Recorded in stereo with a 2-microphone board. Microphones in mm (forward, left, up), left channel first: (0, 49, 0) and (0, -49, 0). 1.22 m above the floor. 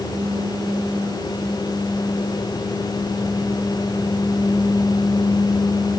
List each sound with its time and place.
Only background noise.